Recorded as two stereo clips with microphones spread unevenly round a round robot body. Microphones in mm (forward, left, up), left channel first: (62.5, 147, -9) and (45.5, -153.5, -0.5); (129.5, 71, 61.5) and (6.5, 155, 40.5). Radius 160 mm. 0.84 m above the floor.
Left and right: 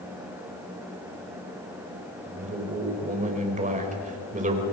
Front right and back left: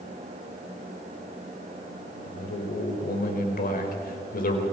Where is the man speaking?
30° right, 4 m.